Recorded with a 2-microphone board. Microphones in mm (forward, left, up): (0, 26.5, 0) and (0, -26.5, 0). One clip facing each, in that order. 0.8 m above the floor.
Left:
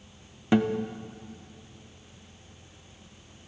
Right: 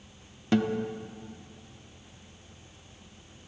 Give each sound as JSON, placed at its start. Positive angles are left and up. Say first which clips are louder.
{"t": 0.5, "sound": "a guitar", "louder": "left 2 dB", "side_deg": 15, "distance_m": 0.5}